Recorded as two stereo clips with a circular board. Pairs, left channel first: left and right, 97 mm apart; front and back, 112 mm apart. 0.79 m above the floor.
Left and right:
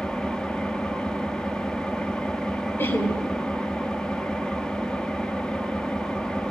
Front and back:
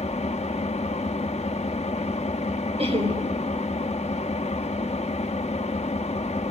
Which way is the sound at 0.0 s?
10° left.